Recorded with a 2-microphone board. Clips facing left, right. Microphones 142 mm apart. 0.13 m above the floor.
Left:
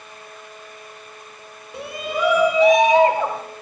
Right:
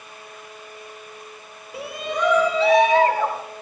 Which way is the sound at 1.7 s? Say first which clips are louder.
Left 1 dB; 5° right (ahead or behind).